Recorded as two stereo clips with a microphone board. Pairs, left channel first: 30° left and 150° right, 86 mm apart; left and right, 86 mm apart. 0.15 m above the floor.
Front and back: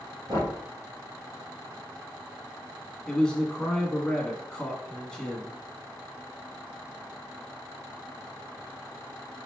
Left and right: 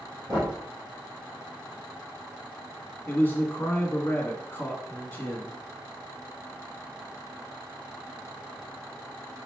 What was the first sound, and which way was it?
Knocking, 140° right.